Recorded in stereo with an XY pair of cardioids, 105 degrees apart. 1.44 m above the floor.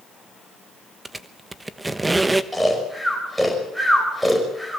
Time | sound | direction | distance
1.1 | a squeak | 15° right | 1.1 m
2.5 | snoring | straight ahead | 5.5 m